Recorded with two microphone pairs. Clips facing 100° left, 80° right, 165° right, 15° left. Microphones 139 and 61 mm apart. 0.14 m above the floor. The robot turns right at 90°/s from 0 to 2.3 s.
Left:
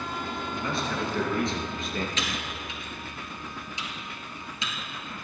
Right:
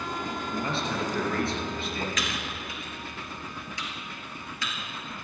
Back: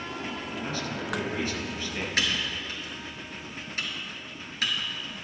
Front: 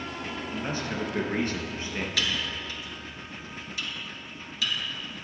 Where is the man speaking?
50° right, 2.5 m; by 2.1 s 90° left, 2.5 m.